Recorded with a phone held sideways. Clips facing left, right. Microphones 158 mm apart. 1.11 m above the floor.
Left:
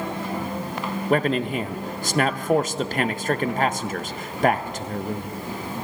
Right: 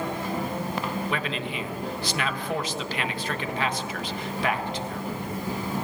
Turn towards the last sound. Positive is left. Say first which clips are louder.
# left 9 dB
turn(degrees=45)  # may be behind; listen again after turning